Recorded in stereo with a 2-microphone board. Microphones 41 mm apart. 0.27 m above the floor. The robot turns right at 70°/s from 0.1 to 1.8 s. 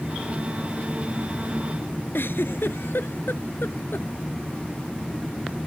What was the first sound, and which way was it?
A giggle, 75° left (ahead or behind).